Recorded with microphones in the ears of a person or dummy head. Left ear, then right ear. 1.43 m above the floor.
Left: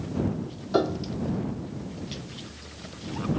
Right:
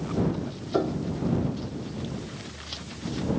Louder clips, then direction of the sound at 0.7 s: Left 2 dB; 80° left.